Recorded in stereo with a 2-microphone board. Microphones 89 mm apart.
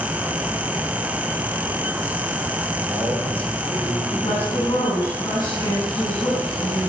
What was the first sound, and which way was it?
A man speaking, 20° right (ahead or behind).